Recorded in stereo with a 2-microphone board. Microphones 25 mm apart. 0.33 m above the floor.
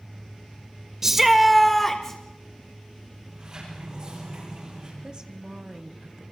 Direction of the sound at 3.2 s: 35° right (ahead or behind).